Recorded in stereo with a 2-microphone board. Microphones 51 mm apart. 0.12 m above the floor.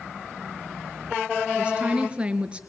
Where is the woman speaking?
25° right (ahead or behind), 2.0 m.